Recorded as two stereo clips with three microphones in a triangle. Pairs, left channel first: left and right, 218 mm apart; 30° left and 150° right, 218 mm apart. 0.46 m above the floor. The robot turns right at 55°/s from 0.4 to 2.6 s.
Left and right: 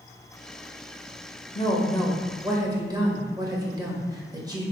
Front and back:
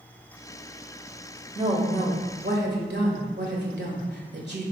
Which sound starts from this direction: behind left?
A woman speaking, at 1.6 s.